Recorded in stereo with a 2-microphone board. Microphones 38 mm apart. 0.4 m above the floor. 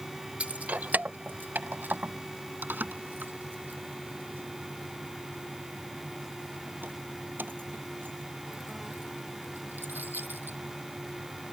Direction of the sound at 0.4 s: 35° right (ahead or behind).